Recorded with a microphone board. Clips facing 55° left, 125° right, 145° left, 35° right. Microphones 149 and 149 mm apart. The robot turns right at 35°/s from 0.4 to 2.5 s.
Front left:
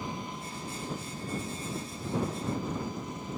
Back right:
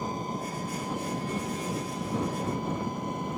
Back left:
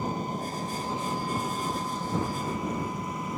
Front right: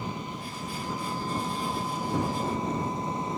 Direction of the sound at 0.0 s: 170° right.